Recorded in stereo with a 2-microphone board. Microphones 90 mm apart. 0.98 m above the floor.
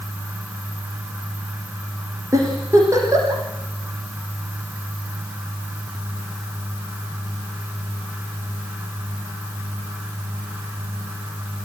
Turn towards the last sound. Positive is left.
turn(degrees=-35)  # may be behind; listen again after turning